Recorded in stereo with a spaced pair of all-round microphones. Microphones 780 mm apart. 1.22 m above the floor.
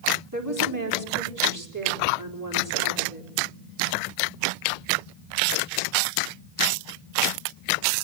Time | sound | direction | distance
0.3 | a woman speaking | 25° right (ahead or behind) | 4 m